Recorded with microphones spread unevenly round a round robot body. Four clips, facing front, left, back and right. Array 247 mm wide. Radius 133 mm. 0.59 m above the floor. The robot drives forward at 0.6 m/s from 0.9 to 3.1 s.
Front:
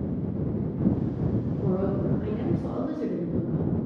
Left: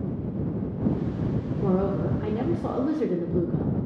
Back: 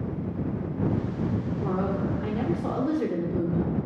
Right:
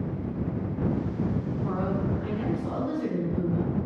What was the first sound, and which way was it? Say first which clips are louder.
A woman speaking: left 6 dB, front 1 dB; 70° left.